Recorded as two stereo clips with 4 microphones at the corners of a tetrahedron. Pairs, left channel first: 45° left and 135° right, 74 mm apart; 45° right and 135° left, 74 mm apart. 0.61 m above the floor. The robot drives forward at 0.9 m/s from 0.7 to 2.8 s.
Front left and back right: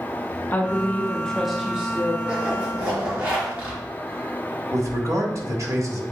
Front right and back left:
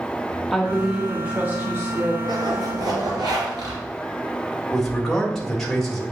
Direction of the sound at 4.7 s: 130° right.